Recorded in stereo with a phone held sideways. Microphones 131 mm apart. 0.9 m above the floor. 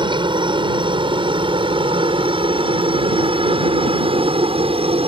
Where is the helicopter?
40° right (ahead or behind); by 5.1 s 45° right (ahead or behind).